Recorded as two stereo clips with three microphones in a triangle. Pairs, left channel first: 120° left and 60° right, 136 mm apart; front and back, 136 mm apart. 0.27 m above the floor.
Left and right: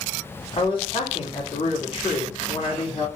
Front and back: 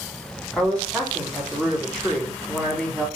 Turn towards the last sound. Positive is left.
turn(degrees=80)